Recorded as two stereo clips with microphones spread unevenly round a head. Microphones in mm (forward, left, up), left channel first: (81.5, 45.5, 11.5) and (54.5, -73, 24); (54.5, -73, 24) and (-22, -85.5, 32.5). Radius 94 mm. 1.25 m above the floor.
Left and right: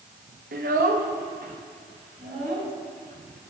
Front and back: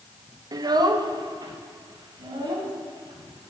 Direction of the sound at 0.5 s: 130° right.